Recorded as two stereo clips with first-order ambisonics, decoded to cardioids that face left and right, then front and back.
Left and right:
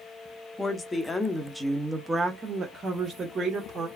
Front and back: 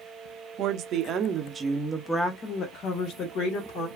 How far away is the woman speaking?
About 0.8 m.